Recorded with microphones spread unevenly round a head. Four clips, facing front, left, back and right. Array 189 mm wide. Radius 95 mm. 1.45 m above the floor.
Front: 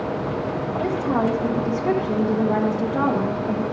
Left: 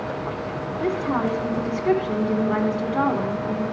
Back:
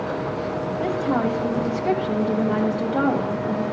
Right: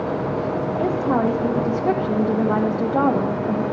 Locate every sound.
0.8 s a woman speaking: 80° right, 1.2 m